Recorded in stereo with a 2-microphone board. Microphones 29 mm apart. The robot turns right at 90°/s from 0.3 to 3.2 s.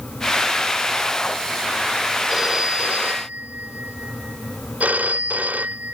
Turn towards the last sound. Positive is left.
turn(degrees=-90)